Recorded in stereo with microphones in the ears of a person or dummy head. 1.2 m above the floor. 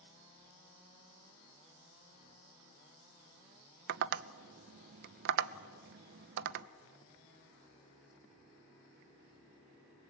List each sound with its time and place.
3.9 s tapping: 45° right (ahead or behind), 0.6 m